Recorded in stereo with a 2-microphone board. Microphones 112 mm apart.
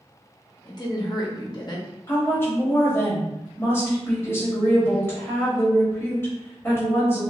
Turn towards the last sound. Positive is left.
turn(degrees=20)  # may be behind; listen again after turning